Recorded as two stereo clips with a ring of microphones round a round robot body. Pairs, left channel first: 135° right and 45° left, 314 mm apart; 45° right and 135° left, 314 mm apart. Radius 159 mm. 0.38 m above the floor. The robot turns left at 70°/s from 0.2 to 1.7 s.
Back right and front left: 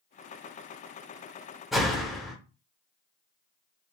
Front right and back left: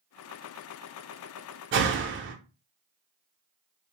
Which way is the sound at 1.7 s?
135° left.